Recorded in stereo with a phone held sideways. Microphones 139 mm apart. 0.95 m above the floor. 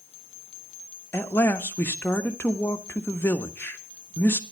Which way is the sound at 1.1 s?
15° left (ahead or behind).